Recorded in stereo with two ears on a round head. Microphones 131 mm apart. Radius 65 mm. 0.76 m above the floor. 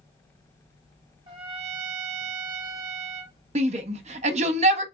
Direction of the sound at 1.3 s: 35° right (ahead or behind).